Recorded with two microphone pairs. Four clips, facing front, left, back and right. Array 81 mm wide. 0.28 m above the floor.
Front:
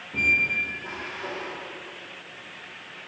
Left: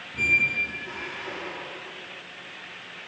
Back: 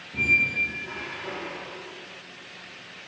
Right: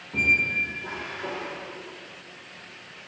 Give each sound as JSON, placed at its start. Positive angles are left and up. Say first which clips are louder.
{"t": 0.1, "sound": "a squeak", "louder": "right 1 dB, even", "azimuth_deg": -60, "distance_m": 8.5}